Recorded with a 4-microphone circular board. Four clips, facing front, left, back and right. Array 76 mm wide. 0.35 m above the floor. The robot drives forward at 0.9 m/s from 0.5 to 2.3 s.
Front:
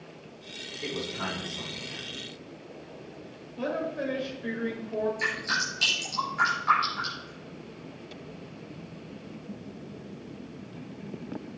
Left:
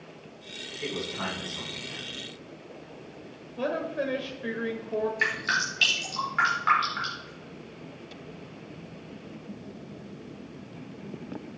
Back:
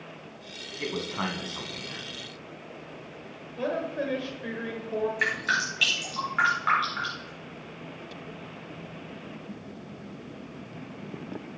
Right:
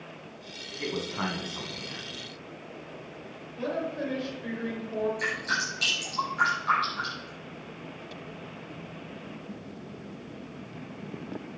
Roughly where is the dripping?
Behind left.